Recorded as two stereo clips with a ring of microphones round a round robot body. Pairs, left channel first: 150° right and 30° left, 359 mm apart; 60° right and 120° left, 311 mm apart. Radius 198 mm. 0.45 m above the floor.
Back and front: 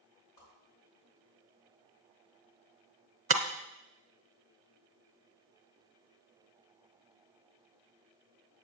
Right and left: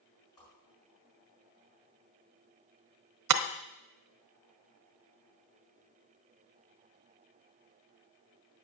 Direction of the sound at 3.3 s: 100° left.